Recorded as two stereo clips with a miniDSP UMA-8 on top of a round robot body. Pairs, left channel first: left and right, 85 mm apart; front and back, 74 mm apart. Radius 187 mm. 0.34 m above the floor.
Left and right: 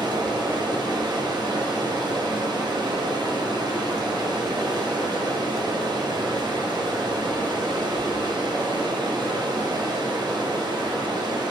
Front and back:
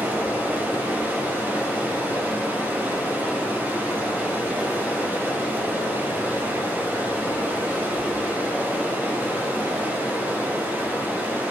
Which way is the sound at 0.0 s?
115° right.